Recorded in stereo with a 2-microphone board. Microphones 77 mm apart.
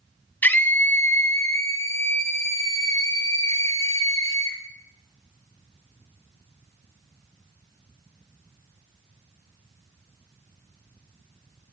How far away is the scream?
About 1.1 m.